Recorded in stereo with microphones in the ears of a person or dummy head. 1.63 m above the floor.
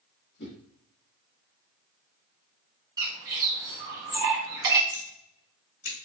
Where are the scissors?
55° left (ahead or behind), 2.5 m.